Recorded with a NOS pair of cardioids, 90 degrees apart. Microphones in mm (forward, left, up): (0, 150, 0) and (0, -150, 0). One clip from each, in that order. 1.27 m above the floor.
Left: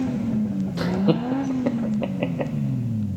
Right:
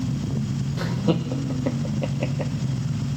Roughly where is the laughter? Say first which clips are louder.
Left 3 dB; ahead.